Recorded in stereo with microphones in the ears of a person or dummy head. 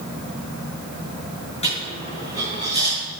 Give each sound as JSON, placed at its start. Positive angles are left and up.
{"t": 1.6, "sound": "a dropped coin", "side_deg": 35, "distance_m": 7.5}